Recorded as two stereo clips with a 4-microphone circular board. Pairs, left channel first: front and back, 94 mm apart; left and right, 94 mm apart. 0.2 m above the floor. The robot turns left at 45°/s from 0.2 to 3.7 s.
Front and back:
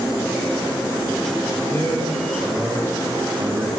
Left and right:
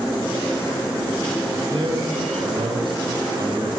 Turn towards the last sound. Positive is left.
turn(degrees=-150)